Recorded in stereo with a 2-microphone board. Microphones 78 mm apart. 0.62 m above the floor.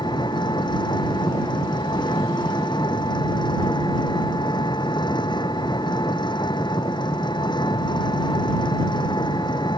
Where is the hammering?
I don't hear hammering.